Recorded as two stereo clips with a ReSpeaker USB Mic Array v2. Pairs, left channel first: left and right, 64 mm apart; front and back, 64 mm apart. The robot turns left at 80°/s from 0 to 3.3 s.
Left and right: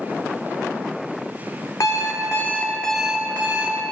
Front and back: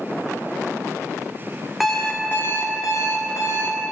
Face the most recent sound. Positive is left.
turn(degrees=-25)